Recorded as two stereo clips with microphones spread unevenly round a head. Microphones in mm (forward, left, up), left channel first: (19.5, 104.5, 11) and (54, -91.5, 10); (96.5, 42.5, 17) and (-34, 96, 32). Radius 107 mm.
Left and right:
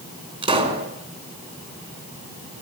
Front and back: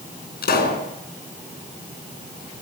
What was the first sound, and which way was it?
A pop, 20° right.